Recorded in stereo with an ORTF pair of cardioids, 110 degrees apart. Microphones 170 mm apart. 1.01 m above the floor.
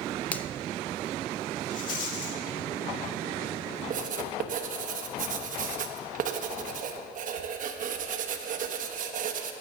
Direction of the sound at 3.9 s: 55° right.